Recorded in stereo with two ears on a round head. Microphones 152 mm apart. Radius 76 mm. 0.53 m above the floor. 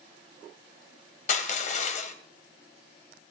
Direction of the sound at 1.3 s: 45° left (ahead or behind).